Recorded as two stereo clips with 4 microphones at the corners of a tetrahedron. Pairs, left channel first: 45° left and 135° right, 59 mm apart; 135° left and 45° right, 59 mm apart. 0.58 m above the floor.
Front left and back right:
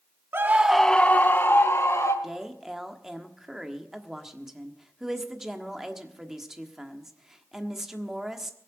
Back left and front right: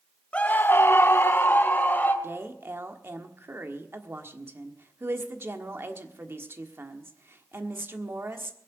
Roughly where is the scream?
Behind.